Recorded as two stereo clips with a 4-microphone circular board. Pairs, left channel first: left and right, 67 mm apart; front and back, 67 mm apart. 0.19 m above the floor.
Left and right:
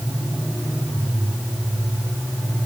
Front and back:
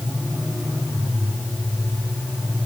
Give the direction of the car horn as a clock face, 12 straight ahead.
I don't hear a car horn.